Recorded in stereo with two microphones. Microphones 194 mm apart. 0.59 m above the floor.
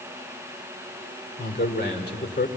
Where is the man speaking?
60° left (ahead or behind), 2.5 m.